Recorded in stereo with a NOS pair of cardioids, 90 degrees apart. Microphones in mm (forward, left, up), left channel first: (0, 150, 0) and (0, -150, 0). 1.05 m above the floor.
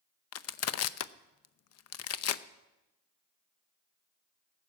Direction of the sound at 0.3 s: 55° left.